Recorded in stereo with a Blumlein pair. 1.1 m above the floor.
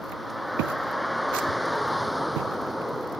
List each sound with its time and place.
0.0 s a vehicle: 5° left